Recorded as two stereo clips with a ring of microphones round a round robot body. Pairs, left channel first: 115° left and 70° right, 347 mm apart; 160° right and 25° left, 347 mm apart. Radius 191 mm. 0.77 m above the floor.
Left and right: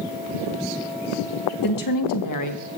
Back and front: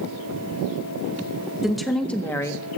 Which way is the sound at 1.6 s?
110° left.